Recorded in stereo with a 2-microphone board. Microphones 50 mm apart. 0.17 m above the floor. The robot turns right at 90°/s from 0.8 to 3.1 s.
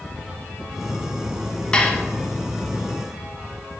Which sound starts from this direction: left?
Dishes clattering, at 1.7 s.